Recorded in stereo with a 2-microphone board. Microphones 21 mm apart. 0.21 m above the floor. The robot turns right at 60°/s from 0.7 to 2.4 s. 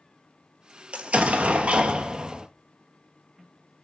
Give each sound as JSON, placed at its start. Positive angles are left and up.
{"t": 0.9, "sound": "an explosion", "azimuth_deg": -115, "distance_m": 0.8}